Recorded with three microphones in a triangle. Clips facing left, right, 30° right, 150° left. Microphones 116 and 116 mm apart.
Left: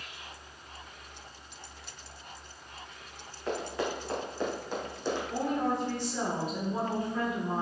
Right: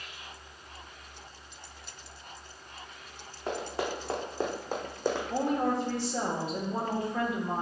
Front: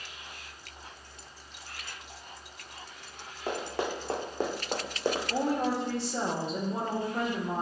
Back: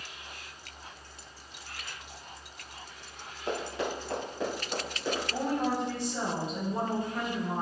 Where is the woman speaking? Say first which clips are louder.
Right 1 dB, even; 35° right, 1.5 m.